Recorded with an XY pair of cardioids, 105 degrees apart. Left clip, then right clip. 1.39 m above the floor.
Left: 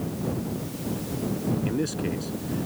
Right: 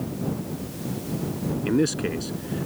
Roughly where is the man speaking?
Ahead right.